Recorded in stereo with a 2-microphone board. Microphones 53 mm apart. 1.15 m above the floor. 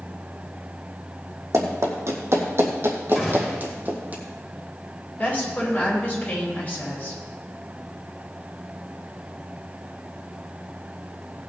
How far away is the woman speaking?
About 6.5 m.